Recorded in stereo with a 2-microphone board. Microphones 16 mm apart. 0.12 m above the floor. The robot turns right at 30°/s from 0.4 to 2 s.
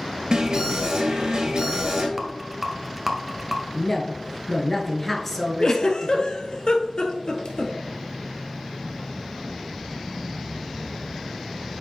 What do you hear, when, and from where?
0.3 s an alarm: 115° right, 2.5 m; by 2.1 s 70° right, 2.5 m
2.2 s a rattle: 15° right (ahead or behind), 1.0 m
3.7 s a woman speaking: 15° left (ahead or behind), 1.5 m
5.6 s a giggle: 50° left (ahead or behind), 1.1 m